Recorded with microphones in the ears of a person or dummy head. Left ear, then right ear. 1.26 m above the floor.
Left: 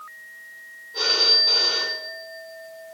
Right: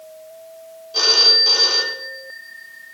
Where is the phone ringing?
65° right (ahead or behind), 3 m.